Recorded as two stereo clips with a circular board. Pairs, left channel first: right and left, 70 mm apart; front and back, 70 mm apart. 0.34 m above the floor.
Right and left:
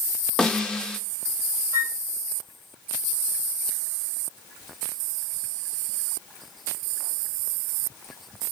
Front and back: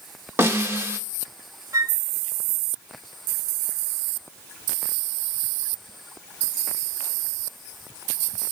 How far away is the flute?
About 0.6 m.